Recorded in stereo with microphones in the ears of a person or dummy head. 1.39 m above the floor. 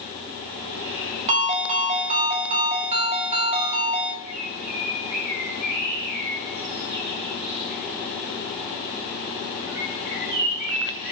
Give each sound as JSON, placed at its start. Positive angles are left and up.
{"t": 1.3, "sound": "a ringtone", "side_deg": -35, "distance_m": 2.0}
{"t": 4.2, "sound": "a bird", "side_deg": -65, "distance_m": 5.5}